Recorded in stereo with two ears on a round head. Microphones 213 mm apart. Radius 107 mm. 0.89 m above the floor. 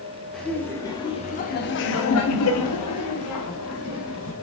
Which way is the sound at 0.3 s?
Centre (ahead or behind).